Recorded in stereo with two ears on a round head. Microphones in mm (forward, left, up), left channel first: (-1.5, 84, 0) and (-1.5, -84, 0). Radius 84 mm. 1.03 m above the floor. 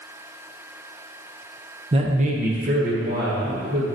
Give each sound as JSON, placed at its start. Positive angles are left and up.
{"t": 1.9, "sound": "a man speaking", "side_deg": -30, "distance_m": 0.7}